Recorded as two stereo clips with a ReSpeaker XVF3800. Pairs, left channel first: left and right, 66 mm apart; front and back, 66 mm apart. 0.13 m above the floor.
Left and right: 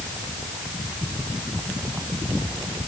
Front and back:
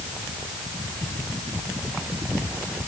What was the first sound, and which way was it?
Only background noise.